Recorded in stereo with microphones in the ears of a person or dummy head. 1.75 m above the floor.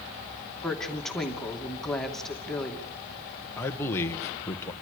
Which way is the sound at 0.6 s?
5° left (ahead or behind).